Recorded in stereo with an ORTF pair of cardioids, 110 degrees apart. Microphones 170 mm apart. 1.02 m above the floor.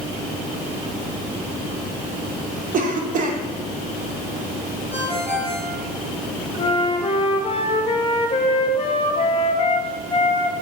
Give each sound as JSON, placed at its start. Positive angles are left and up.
{"t": 2.7, "sound": "a cough", "azimuth_deg": -55, "distance_m": 0.8}
{"t": 4.9, "sound": "a ringtone", "azimuth_deg": -10, "distance_m": 3.0}
{"t": 6.6, "sound": "a flute", "azimuth_deg": 35, "distance_m": 1.0}